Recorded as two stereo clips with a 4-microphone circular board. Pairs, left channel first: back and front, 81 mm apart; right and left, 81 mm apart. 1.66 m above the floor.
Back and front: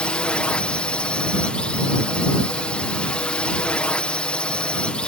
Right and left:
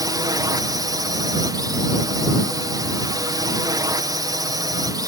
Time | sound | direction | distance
0.0 | a drone | 105° left | ?